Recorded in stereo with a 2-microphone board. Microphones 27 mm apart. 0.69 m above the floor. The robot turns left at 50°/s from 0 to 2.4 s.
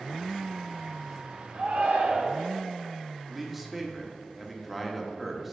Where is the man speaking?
Centre (ahead or behind), 1.0 m.